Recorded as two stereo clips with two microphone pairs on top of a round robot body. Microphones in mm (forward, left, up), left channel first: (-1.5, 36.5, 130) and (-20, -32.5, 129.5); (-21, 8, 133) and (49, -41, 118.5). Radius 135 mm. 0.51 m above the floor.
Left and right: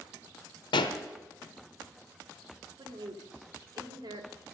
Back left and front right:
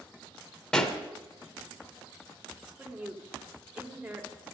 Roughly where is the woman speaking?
Right.